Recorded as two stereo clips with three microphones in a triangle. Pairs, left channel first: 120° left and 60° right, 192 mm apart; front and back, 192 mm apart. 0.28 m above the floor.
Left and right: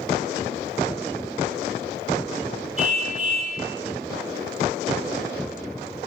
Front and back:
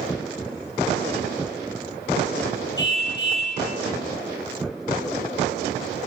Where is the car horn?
10° right, 3.5 m.